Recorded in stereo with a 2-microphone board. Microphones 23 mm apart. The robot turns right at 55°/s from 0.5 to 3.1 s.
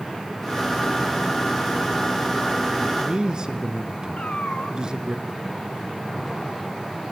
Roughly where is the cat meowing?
Left.